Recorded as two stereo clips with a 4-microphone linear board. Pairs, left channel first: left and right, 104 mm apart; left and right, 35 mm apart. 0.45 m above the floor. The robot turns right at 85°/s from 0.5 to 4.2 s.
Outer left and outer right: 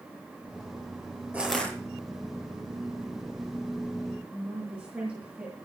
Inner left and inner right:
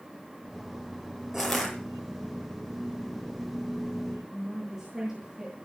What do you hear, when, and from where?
1.3 s crushing: 15° right, 7 m; by 1.7 s 20° left, 7 m
4.3 s a woman speaking: 10° right (ahead or behind), 8.5 m